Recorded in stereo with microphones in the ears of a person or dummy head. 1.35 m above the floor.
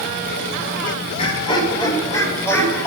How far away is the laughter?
About 4 m.